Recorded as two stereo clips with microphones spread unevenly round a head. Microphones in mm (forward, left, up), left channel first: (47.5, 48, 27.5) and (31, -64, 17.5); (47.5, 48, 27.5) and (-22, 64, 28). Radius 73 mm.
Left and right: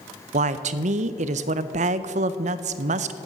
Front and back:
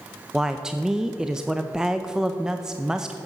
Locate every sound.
0.3 s a woman speaking: 110° right, 0.6 m